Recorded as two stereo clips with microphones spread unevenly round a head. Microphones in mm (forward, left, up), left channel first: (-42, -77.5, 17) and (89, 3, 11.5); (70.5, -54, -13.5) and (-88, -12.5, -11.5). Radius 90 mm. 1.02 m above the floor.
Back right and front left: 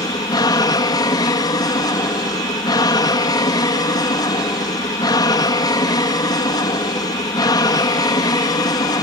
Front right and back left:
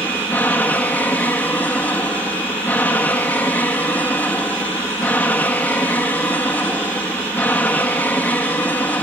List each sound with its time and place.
0.0 s an aircraft: 90° right